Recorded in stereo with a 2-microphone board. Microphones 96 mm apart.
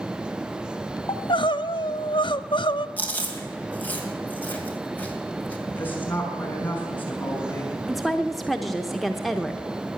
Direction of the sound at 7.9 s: Centre (ahead or behind).